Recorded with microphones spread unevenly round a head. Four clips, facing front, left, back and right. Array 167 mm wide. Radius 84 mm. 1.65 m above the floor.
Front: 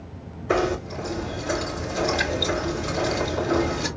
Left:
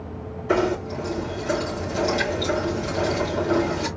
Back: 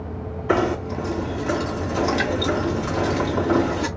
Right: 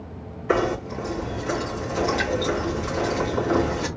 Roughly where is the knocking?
Behind.